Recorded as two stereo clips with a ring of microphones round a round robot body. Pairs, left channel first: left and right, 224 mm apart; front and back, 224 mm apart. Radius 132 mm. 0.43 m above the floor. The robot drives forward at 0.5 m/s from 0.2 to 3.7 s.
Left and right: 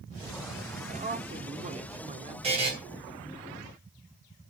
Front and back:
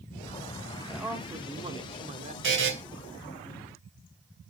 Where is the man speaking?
90° right, 1.1 m; by 2.3 s 140° right, 1.3 m.